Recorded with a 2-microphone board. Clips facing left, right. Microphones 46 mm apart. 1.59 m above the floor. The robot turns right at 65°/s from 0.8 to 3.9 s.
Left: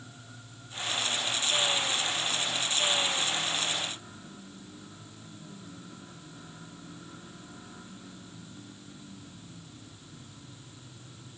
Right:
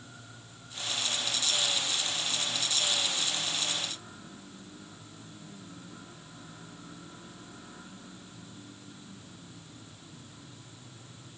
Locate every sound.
Only background noise.